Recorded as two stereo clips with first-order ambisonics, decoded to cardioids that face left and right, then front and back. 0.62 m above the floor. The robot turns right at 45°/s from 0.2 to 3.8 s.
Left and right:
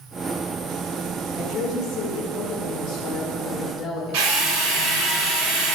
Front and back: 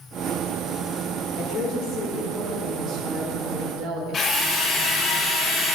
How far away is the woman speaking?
About 2.0 m.